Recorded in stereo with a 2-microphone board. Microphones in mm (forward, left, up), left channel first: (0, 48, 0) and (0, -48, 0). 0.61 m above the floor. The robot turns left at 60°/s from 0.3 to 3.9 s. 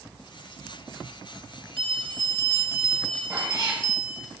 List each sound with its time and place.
1.8 s a bell: 110° right, 2 m; by 4.3 s 125° left, 2 m
3.3 s a cat meowing: 25° right, 2.5 m; by 3.8 s 55° right, 2.5 m